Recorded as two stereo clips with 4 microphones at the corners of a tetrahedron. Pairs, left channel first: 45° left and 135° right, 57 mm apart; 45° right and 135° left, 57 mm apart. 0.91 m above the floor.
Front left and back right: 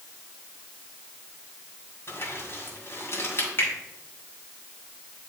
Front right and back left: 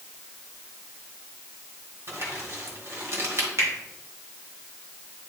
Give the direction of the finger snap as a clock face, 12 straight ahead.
9 o'clock.